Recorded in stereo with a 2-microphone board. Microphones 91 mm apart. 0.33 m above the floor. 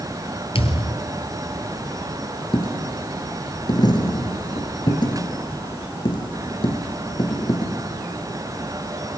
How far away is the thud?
About 1.6 m.